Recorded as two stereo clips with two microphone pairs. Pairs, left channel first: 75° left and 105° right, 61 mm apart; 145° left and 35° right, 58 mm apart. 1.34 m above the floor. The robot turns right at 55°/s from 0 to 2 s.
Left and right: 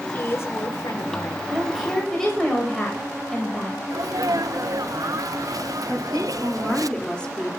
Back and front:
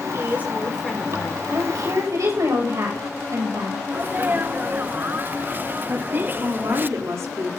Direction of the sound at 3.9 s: 90° right.